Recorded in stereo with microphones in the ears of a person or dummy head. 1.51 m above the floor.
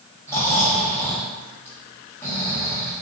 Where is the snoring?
10° left (ahead or behind), 1.0 m.